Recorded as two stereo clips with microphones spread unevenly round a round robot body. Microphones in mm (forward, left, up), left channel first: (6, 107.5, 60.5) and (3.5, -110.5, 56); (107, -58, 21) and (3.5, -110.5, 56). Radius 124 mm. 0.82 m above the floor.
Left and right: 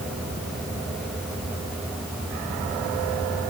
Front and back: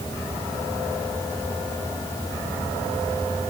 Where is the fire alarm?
No fire alarm in this recording.